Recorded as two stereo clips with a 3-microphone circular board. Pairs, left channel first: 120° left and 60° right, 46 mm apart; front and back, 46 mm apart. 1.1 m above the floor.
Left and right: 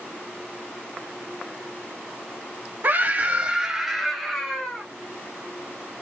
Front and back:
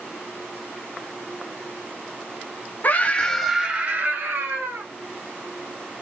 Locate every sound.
2.8 s a scream: 30° right, 0.9 m; by 4.9 s 165° right, 1.5 m